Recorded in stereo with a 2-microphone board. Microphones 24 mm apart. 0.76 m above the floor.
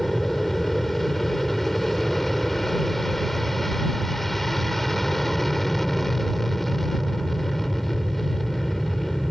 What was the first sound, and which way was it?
An aircraft, 10° left (ahead or behind).